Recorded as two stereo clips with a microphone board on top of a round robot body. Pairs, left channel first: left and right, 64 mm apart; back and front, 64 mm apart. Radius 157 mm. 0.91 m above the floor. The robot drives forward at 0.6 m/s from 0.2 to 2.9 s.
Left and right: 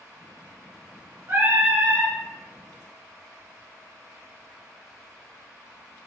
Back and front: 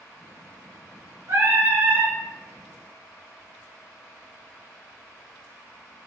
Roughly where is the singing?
Ahead right.